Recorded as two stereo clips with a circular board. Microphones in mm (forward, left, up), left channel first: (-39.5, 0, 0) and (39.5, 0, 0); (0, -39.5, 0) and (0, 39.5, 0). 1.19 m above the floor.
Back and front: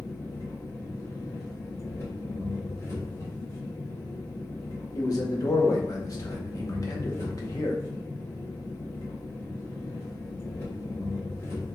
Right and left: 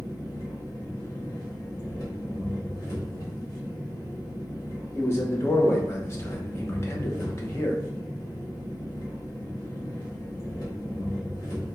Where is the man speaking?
140° right, 0.8 m.